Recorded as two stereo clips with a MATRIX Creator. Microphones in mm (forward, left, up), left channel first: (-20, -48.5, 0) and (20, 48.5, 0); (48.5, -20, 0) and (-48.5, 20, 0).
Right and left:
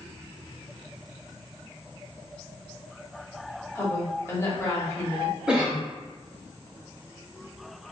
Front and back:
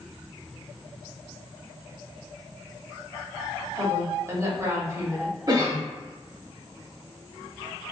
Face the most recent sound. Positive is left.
turn(degrees=145)